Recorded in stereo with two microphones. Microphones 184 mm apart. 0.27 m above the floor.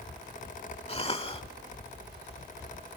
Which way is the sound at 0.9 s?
30° left (ahead or behind).